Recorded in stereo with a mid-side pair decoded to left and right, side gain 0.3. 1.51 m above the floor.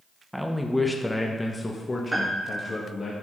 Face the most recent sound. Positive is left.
turn(degrees=-30)